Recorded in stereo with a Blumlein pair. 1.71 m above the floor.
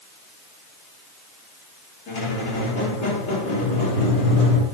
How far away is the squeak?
About 2.5 m.